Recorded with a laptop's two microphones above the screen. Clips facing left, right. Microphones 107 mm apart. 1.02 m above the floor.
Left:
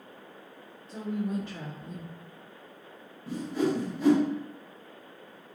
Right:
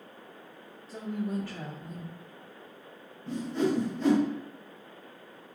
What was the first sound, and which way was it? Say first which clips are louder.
A woman speaking: left 1 dB; centre (ahead or behind).